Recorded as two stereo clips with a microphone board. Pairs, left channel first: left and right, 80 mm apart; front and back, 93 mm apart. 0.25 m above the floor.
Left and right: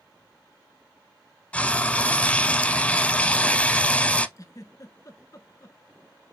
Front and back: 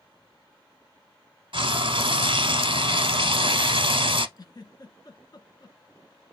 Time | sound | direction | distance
1.5 | frying | 160° left | 0.6 m
4.4 | a giggle | 45° left | 0.8 m